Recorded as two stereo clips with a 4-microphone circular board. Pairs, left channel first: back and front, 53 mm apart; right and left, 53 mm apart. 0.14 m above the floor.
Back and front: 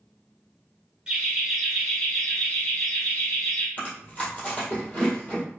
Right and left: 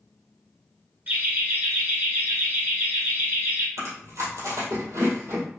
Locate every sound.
1.1 s laughter: 65° left, 1.5 m; by 3.7 s 125° left, 2.5 m
3.8 s chewing: 115° left, 1.8 m